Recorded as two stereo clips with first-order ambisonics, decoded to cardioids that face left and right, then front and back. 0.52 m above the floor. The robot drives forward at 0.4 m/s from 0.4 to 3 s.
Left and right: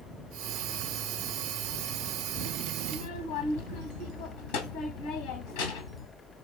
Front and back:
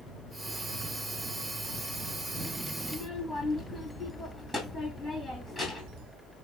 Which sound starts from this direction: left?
A child speaking, at 2.8 s.